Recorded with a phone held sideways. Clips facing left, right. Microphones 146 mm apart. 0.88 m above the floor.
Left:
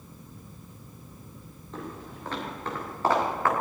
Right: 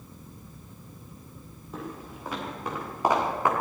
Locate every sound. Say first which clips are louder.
1.7 s footsteps: right 1 dB; 5° right (ahead or behind), 8 m; by 3.5 s 15° right (ahead or behind), 6 m